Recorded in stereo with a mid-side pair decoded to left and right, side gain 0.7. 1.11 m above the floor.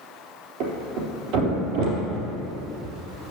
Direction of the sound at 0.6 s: 70° right.